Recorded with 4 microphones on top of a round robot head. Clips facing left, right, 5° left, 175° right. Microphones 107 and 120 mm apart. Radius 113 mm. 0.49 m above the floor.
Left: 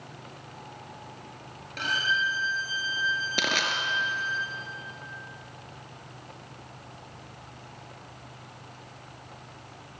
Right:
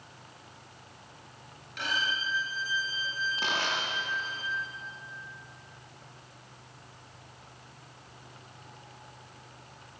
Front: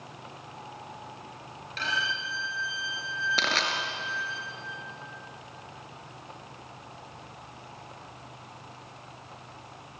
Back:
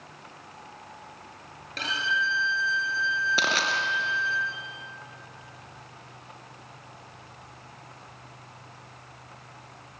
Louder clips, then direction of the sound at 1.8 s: Left 4 dB, back 3 dB; 140° left.